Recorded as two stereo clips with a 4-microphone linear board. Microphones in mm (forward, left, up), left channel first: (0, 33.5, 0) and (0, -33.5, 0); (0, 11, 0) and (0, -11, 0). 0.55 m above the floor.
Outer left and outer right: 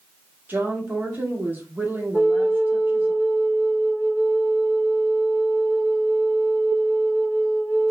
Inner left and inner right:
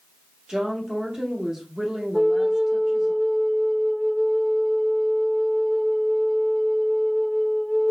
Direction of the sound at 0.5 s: 30° right (ahead or behind).